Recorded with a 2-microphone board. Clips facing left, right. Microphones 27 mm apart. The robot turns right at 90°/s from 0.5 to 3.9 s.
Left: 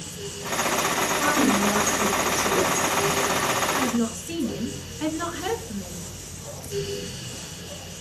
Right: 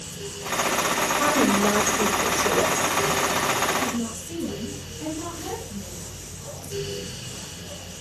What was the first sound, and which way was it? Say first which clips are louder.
A woman speaking: right 1 dB; 155° right.